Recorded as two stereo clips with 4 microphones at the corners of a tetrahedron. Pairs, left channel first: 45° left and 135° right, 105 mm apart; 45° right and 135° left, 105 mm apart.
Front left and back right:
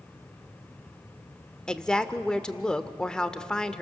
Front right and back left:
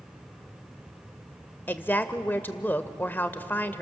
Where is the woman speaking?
25° right, 0.8 m.